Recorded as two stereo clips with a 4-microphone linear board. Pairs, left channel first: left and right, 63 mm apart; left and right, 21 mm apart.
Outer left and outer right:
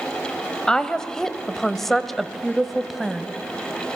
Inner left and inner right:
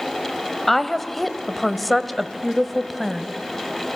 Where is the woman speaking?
10° left (ahead or behind), 1.1 m; by 3.3 s 5° right (ahead or behind), 1.4 m.